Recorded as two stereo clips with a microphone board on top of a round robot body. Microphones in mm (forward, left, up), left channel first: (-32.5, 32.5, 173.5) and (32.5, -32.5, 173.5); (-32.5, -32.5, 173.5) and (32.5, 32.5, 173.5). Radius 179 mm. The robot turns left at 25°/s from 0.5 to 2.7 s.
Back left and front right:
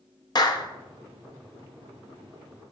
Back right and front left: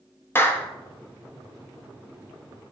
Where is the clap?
165° left, 1.0 m; by 0.7 s 160° left, 1.0 m.